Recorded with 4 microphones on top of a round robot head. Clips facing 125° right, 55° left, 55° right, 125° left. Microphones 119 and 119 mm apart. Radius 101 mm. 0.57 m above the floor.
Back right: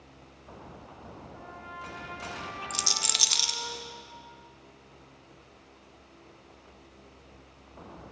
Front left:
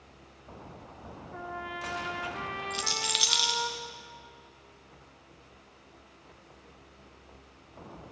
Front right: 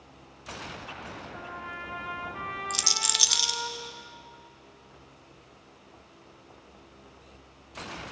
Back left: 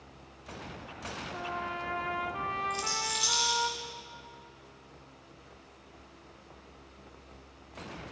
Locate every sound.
1.3 s a trumpet: 70° left, 0.9 m
2.7 s a rattle: 75° right, 0.5 m